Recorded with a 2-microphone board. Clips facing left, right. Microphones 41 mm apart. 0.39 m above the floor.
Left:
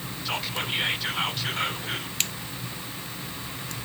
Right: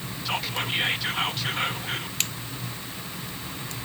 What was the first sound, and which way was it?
Whispering, centre (ahead or behind).